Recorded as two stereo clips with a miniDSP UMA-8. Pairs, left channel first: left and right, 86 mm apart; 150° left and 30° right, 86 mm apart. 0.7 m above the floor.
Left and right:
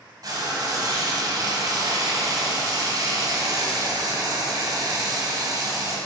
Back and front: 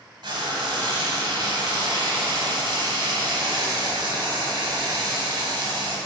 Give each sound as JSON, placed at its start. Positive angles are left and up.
{"t": 0.2, "sound": "frying", "azimuth_deg": -50, "distance_m": 1.1}